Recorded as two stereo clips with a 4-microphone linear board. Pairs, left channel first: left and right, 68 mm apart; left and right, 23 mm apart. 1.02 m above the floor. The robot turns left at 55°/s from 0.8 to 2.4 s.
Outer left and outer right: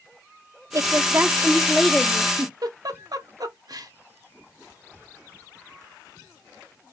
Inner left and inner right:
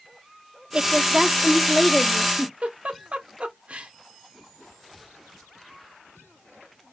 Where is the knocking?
I don't hear knocking.